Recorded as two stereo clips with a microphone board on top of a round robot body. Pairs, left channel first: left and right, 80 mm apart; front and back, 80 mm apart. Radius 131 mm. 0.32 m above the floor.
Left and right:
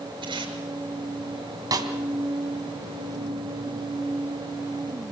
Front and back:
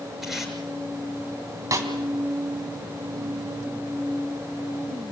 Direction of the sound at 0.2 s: 95° right.